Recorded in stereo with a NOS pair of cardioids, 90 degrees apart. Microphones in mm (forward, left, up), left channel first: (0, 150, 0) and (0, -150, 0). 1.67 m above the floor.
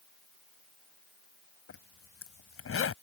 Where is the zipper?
45° left.